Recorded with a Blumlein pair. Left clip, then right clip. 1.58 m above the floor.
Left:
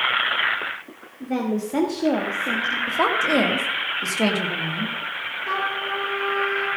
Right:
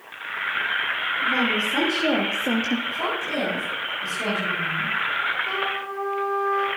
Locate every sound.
1.2 s a woman speaking: 35° left, 2.5 m; by 2.8 s 40° right, 1.2 m
2.9 s a woman speaking: 55° left, 2 m
5.5 s a trumpet: 15° left, 5 m